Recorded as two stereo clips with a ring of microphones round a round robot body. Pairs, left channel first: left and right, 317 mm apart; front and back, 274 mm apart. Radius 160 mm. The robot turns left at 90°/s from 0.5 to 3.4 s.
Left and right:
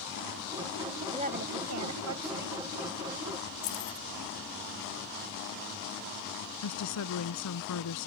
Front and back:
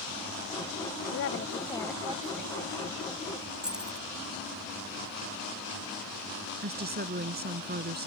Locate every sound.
1.1 s a woman speaking: 20° right; by 2.6 s 150° right
3.6 s keys jangling: 95° left
6.6 s a woman speaking: 125° left